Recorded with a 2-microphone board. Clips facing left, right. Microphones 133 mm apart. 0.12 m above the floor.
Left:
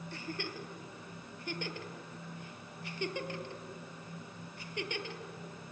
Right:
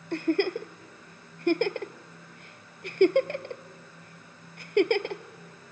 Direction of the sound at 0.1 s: 65° right (ahead or behind).